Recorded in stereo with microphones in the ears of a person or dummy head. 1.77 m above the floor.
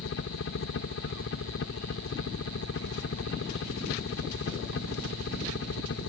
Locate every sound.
0.0 s a helicopter: 65° left (ahead or behind)